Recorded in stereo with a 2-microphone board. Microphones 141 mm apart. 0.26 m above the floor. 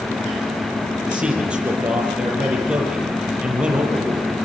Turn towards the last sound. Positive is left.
turn(degrees=-5)  # may be behind; listen again after turning